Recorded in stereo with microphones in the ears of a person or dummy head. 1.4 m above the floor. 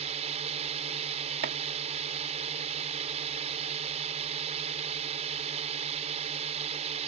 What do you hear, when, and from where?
0.0 s a drone: 40° right (ahead or behind)
1.4 s chopping: 55° right (ahead or behind)